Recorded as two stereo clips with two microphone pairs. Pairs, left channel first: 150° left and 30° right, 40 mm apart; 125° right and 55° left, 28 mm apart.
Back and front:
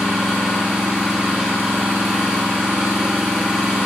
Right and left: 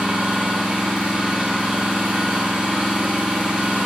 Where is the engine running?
45° left, 1.7 m.